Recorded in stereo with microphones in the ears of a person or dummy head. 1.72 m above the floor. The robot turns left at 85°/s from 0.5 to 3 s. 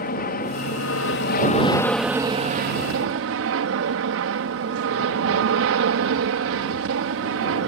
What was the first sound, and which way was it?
An aircraft, 130° left.